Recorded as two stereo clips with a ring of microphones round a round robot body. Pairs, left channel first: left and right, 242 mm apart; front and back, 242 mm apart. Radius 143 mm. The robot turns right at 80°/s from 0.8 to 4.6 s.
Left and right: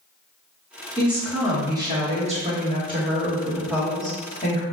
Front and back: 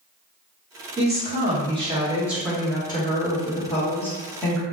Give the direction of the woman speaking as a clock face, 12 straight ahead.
7 o'clock.